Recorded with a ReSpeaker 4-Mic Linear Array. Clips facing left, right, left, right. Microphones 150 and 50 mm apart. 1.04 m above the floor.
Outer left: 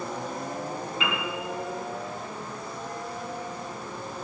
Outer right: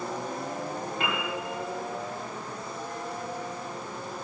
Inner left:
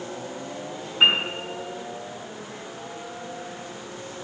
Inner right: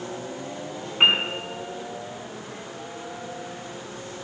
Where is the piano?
50° right (ahead or behind), 4.5 m.